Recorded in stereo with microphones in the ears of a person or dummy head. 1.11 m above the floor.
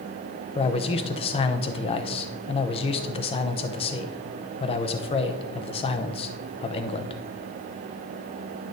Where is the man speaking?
25° left (ahead or behind), 0.6 m.